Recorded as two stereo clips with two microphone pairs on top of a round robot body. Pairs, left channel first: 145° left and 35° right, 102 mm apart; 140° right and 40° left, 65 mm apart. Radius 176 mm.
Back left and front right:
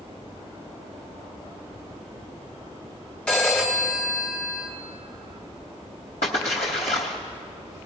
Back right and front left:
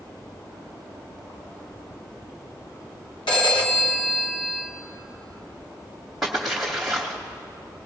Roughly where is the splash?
Behind left.